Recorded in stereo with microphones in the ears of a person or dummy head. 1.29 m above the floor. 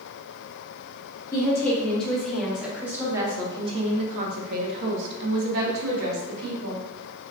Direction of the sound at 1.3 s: 15° left (ahead or behind).